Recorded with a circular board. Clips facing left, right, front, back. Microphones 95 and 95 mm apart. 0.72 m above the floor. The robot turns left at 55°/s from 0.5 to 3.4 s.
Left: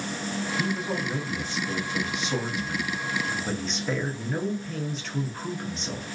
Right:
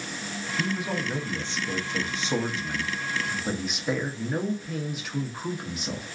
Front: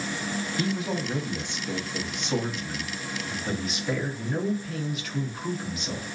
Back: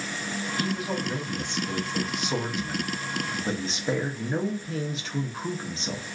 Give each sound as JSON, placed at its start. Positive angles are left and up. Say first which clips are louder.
{"t": 0.6, "sound": "a man speaking", "louder": "right 2 dB, even", "azimuth_deg": -5, "distance_m": 0.6}